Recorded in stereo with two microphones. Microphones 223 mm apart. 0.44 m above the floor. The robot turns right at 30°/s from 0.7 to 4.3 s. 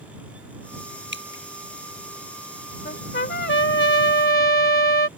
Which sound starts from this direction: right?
Dripping, at 1.1 s.